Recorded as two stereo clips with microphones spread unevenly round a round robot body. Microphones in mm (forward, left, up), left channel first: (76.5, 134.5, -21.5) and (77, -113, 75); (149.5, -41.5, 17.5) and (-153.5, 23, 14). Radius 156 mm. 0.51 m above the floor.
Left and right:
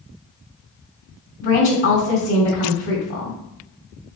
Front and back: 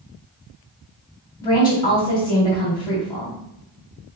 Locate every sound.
1.4 s a woman speaking: 65° left, 2.5 m